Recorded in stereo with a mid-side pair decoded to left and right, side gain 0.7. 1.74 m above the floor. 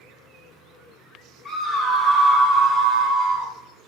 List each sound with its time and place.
1.4 s a scream: 40° left, 1.0 m; by 3.5 s 75° right, 0.9 m